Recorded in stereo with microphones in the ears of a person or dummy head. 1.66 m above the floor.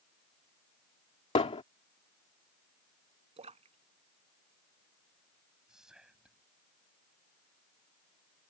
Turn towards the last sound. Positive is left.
turn(degrees=-5)  # may be behind; listen again after turning